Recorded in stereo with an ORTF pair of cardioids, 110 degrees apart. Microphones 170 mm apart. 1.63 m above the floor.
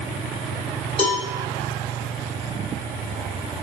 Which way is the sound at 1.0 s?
30° left.